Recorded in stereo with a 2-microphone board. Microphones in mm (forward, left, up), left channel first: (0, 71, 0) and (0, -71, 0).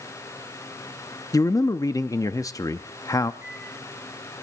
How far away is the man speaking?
About 0.5 m.